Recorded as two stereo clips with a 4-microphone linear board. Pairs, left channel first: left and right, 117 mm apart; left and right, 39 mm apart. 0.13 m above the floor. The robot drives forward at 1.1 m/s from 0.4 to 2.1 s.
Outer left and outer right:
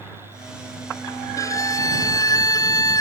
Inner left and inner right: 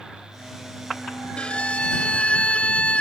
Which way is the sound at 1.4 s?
25° left (ahead or behind).